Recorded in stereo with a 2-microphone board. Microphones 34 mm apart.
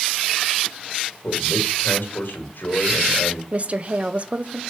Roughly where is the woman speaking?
Right.